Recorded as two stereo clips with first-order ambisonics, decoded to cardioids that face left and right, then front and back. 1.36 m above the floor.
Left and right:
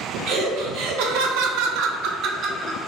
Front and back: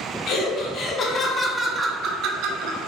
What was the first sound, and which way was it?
Laughter, 55° right.